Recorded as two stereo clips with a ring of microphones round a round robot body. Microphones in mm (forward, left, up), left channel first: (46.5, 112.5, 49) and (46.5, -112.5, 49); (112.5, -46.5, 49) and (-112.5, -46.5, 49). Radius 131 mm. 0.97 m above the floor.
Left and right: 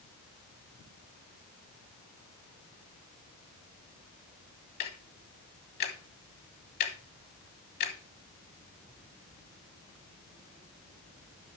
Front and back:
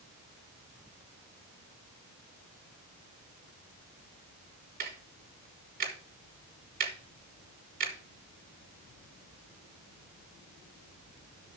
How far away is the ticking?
About 1.7 m.